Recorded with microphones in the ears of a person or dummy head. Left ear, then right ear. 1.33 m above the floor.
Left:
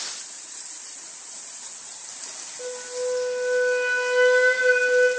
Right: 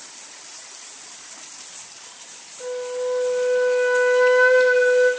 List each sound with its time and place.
2.6 s a flute: 40° left (ahead or behind), 2.5 m